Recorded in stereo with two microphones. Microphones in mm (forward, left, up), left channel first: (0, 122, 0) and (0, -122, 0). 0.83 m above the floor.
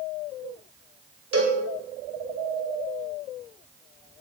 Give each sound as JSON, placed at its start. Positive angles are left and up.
{"t": 1.3, "sound": "a cowbell", "side_deg": -70, "distance_m": 3.0}